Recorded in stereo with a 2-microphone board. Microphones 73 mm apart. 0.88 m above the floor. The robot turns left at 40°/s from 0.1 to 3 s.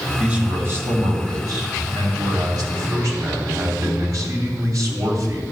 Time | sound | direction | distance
0.2 | a man speaking | 20° right | 2.5 m